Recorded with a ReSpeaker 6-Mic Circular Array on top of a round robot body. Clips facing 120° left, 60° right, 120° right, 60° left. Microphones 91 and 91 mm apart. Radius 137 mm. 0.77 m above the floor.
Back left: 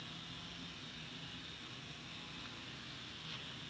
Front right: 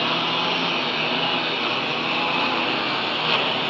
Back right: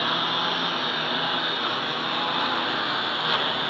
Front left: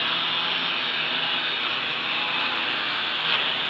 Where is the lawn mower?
55° right; by 3.7 s 50° right.